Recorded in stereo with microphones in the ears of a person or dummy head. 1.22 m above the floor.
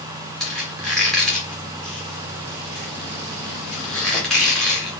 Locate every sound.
0.4 s a squeak: 10° left (ahead or behind), 0.8 m